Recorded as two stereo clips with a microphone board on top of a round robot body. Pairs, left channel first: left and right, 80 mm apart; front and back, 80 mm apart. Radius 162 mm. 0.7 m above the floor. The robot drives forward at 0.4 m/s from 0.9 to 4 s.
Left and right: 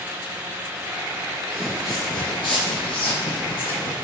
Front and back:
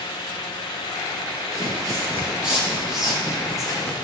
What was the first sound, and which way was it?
Footsteps, 150° right.